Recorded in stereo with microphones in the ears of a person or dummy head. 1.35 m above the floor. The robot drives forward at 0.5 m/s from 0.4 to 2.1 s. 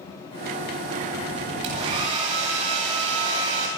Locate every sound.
1.6 s a hair dryer: 35° right (ahead or behind), 9.5 m